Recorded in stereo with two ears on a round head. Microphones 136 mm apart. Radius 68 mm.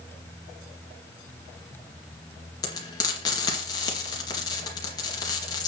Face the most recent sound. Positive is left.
turn(degrees=25)  # may be behind; listen again after turning